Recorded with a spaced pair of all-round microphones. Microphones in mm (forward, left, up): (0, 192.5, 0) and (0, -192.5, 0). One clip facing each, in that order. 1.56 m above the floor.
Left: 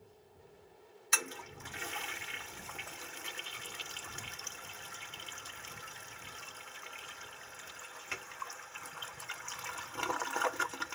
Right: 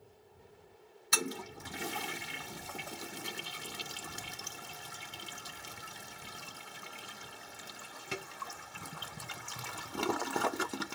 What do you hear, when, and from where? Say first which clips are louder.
1.1 s a toilet flushing: right 7 dB; 55° right (ahead or behind)